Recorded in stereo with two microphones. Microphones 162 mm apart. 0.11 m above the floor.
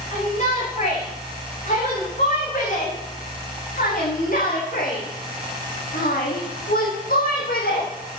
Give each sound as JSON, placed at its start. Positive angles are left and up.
{"t": 0.1, "sound": "a shout", "side_deg": 50, "distance_m": 9.0}